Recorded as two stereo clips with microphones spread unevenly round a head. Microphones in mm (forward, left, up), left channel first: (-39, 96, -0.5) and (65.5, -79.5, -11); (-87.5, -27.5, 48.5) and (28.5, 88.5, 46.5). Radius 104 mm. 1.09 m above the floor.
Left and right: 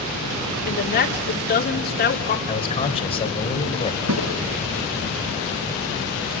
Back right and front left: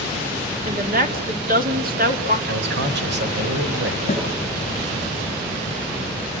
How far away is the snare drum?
About 5.5 m.